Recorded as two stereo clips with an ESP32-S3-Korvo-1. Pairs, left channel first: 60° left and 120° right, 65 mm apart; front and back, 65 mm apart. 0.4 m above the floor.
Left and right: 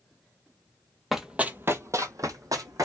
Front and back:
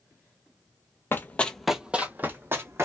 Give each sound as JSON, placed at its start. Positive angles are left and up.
{"t": 1.1, "sound": "running footsteps", "azimuth_deg": -35, "distance_m": 0.5}